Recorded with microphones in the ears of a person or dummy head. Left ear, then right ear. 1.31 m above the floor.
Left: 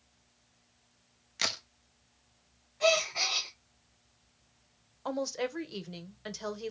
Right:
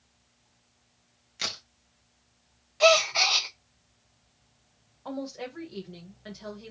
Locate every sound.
1.4 s a crack: 15° left (ahead or behind), 0.6 m
2.8 s a gasp: 25° right (ahead or behind), 0.5 m
5.0 s a woman speaking: 80° left, 1.2 m